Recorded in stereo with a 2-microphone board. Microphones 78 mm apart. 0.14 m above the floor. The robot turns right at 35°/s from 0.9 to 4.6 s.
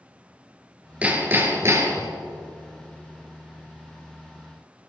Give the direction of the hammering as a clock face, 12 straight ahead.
5 o'clock.